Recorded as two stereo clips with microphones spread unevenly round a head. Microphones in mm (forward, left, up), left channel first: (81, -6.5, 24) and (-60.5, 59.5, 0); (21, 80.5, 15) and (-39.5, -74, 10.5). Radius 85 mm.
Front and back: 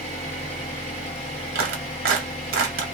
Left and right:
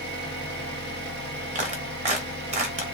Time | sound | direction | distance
0.0 | an engine running | 80° right | 0.9 m
1.6 | a clap | 165° right | 0.8 m